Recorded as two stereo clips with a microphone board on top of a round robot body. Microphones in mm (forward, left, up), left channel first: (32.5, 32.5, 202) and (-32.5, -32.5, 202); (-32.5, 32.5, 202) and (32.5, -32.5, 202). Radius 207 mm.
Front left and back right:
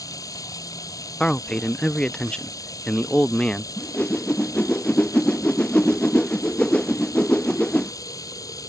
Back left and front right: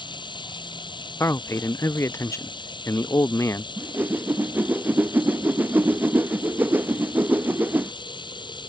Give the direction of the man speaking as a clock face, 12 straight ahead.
8 o'clock.